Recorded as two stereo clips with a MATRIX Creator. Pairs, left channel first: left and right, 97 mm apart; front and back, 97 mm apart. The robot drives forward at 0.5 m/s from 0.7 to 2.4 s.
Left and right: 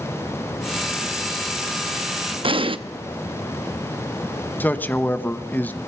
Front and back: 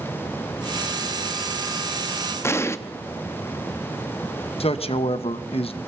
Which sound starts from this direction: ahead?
A man speaking, at 4.6 s.